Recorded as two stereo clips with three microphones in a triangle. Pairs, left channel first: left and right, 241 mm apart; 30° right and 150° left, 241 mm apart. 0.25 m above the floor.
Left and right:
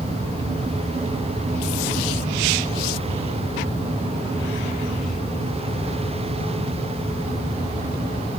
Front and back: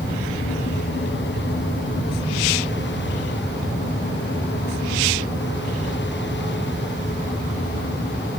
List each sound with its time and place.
Only background noise.